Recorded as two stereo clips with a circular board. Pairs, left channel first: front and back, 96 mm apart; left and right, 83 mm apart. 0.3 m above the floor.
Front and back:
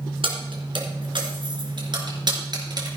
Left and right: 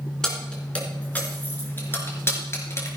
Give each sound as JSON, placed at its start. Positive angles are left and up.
{"t": 0.2, "sound": "keys jangling", "azimuth_deg": 170, "distance_m": 3.0}